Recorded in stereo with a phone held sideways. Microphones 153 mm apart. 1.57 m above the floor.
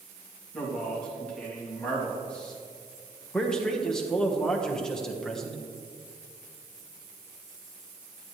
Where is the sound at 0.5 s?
5° left (ahead or behind), 3 m.